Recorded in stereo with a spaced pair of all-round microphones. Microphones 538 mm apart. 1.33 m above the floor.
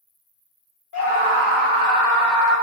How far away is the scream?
About 0.5 m.